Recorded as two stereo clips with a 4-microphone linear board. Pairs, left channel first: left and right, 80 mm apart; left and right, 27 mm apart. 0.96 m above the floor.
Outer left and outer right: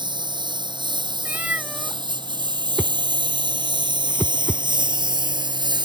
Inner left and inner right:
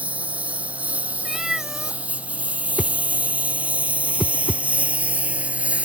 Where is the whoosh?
15° right (ahead or behind).